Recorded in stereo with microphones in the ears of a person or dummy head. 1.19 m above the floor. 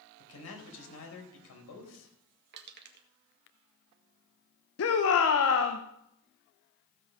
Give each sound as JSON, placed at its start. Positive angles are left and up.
{"t": 0.2, "sound": "a man speaking", "side_deg": 80, "distance_m": 4.5}
{"t": 2.5, "sound": "crushing", "side_deg": -55, "distance_m": 1.5}
{"t": 4.8, "sound": "a shout", "side_deg": 70, "distance_m": 1.1}